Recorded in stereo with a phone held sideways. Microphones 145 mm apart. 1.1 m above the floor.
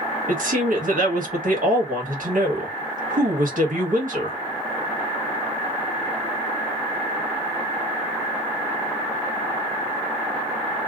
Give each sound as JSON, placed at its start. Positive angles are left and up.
{"t": 0.3, "sound": "a woman speaking", "side_deg": -70, "distance_m": 1.4}